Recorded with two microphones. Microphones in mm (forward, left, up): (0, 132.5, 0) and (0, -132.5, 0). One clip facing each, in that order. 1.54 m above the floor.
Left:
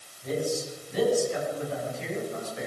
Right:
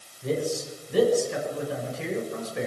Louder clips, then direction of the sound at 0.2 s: Right 2 dB; 75° right (ahead or behind).